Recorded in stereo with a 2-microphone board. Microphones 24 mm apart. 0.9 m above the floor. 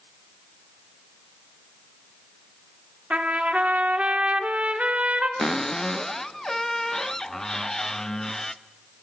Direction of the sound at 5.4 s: 20° left (ahead or behind).